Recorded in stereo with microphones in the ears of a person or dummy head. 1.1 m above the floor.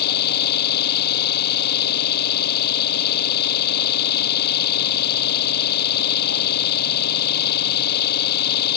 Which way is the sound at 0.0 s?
55° left (ahead or behind).